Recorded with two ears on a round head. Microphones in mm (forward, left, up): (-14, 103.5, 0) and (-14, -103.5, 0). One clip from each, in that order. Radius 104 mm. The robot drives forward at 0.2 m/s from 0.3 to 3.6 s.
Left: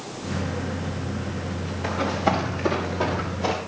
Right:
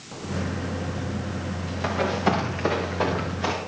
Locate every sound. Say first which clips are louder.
1.8 s running footsteps: even; 60° right (ahead or behind), 6 m; by 3.5 s 70° right (ahead or behind), 6 m